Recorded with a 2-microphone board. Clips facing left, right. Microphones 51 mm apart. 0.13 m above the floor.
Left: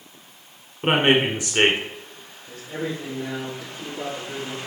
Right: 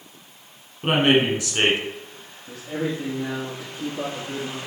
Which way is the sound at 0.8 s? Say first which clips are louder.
Even; 20° left (ahead or behind).